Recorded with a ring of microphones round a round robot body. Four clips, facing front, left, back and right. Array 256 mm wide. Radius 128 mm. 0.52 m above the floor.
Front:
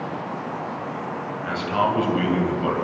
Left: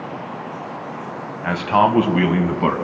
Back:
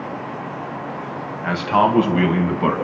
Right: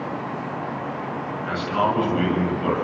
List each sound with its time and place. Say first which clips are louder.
1.4 s a man speaking: left 7 dB, back 6 dB; 120° left, 3.5 m